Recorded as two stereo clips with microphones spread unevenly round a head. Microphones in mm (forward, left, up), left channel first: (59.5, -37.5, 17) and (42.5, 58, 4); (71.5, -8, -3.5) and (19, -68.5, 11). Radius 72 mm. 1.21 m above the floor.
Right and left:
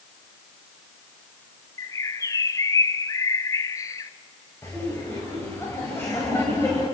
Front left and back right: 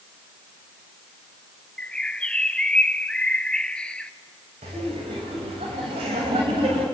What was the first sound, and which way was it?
A bird, 20° right.